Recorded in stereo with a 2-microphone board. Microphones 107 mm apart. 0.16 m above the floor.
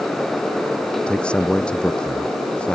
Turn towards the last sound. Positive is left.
turn(degrees=10)  # may be behind; listen again after turning